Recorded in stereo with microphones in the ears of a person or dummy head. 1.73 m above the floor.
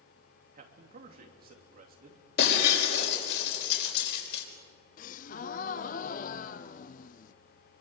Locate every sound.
0.5 s a man speaking: 40° right (ahead or behind), 3 m
2.4 s breaking glass: 60° left (ahead or behind), 5 m
5.0 s a gasp: 45° left (ahead or behind), 0.7 m